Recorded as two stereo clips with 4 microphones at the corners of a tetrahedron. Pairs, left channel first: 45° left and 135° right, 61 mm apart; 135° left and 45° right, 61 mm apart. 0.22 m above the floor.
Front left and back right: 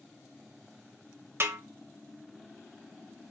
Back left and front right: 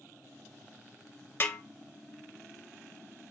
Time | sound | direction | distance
1.4 | a snare drum | straight behind | 1.7 m